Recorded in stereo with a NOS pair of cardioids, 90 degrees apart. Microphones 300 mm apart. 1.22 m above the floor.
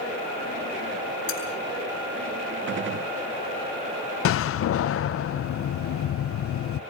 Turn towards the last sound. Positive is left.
turn(degrees=45)